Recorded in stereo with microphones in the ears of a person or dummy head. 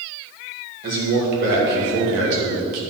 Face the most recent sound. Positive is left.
turn(degrees=-85)